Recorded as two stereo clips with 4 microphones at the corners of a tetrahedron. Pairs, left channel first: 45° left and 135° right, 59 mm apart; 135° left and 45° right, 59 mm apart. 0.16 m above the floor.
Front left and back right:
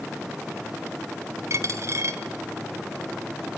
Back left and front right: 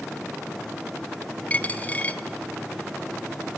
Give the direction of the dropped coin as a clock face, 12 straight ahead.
5 o'clock.